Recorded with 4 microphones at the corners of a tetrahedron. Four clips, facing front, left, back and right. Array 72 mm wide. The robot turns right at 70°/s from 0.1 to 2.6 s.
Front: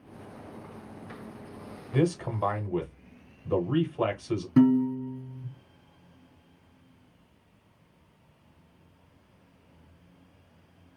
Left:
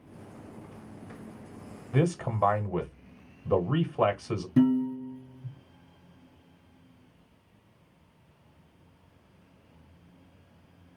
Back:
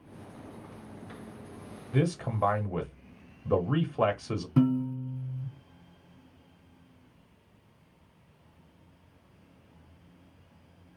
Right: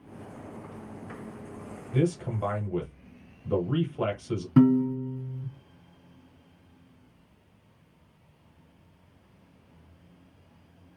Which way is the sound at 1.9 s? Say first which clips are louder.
Even, front 2 dB; 90° left.